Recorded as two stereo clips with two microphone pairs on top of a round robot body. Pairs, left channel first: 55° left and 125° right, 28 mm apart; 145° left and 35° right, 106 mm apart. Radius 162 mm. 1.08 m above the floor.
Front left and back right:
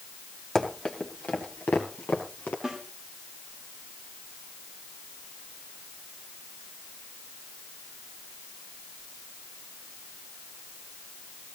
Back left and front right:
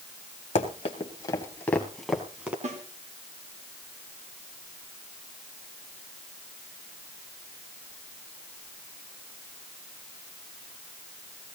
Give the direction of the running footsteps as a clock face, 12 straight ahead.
8 o'clock.